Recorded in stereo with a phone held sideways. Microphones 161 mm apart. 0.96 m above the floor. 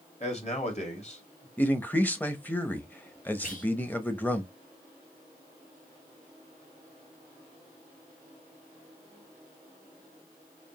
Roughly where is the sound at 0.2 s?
Left.